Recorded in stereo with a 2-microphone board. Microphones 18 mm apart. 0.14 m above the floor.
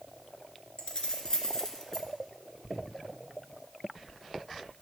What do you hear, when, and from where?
0.8 s keys jangling: 50° left (ahead or behind), 1.7 m; by 2.1 s 20° left (ahead or behind), 1.3 m